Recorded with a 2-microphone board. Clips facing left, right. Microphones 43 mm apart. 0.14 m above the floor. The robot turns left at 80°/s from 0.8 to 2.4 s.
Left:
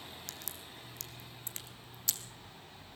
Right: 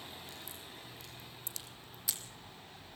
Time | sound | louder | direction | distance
0.3 | a crack | even | 80° left | 1.9 m